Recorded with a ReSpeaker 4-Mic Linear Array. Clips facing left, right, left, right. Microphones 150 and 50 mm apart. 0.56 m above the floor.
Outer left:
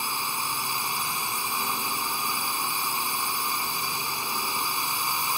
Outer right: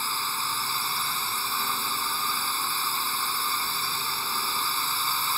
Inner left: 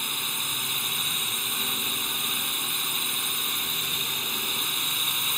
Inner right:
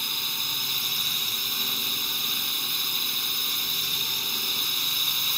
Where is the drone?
15° left (ahead or behind).